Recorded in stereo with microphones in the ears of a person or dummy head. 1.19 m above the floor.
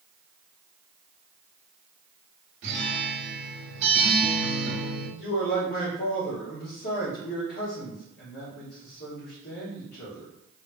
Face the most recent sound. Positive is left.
turn(degrees=45)  # may be behind; listen again after turning